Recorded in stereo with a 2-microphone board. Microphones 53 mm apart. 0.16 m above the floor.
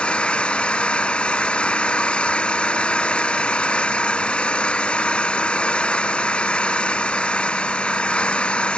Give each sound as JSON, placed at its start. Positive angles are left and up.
{"t": 0.0, "sound": "an engine running", "side_deg": 20}